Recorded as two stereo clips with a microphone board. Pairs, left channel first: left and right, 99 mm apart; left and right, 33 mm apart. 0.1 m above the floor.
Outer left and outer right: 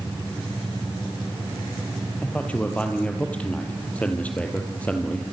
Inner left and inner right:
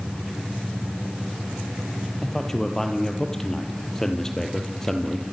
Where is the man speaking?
15° left (ahead or behind), 3.5 m.